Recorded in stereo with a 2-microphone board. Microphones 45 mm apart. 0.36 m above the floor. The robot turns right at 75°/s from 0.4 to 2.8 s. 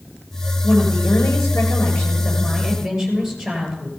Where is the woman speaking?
20° left, 7 m; by 3.9 s 175° right, 7 m.